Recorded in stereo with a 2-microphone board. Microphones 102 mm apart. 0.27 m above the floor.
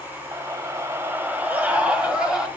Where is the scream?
30° right (ahead or behind), 1.8 m; by 2.5 s 5° right (ahead or behind), 2.5 m.